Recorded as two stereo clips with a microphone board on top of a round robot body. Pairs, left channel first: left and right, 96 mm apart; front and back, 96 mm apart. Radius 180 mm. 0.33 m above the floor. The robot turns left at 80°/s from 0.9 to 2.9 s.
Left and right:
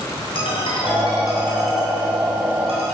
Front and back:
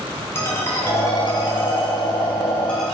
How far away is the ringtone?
About 3 m.